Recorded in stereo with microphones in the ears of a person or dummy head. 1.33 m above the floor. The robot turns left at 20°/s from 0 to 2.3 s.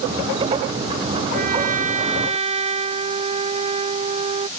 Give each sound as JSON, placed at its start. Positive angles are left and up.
{"t": 1.3, "sound": "a trumpet", "side_deg": -50}